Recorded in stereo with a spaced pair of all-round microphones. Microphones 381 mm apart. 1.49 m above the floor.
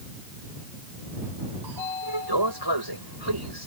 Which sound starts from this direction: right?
A sliding door, at 1.6 s.